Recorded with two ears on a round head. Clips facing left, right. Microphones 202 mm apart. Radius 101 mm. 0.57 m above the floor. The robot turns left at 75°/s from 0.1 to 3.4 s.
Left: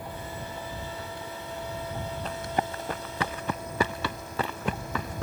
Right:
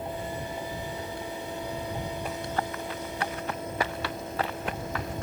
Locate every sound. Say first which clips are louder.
2.2 s running footsteps: left 4 dB; 10° right (ahead or behind); by 5.2 s 80° left